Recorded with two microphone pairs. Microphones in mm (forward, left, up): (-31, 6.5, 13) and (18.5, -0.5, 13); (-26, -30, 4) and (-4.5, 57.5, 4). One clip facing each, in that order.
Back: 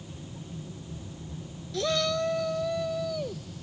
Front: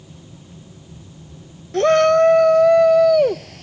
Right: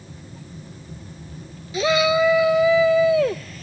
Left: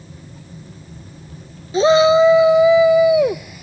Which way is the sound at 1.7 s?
25° left.